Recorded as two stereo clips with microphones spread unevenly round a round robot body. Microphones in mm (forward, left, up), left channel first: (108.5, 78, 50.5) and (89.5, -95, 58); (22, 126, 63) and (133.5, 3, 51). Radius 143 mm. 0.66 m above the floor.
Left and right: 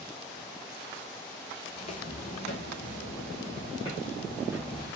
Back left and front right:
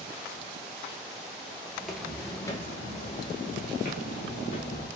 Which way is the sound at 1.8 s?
40° left.